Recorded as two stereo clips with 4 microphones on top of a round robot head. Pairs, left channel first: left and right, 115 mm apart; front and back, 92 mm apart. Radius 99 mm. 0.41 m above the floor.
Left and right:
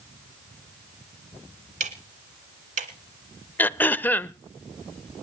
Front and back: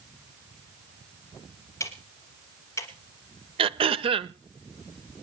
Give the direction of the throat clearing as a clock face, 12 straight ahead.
7 o'clock.